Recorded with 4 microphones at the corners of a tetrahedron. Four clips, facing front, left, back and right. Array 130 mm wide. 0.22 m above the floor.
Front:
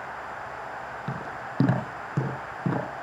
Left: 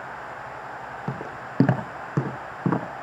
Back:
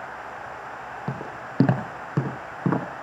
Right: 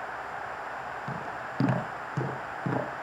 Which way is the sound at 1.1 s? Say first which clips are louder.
Left 2 dB, back 1 dB; 130° left.